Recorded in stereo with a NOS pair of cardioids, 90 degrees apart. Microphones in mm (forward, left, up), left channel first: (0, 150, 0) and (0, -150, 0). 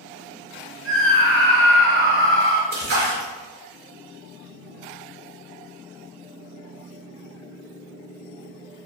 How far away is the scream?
About 1.3 m.